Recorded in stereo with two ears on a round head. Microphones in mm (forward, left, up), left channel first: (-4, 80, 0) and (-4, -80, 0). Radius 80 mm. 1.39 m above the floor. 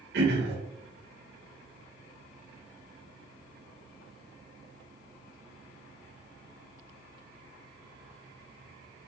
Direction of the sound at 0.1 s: 65° right (ahead or behind).